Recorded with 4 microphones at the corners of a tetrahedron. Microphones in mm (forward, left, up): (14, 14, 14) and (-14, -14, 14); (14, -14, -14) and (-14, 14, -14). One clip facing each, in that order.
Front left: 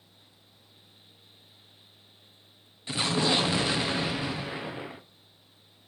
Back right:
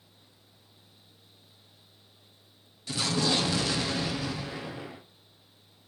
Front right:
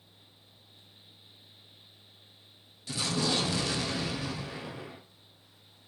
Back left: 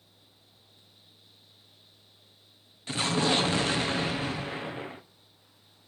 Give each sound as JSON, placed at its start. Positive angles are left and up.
{"t": 2.9, "sound": "an explosion", "azimuth_deg": 100, "distance_m": 0.7}